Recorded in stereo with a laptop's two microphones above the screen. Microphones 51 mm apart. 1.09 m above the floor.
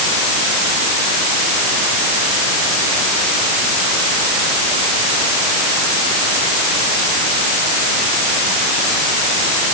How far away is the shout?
No shout in this recording.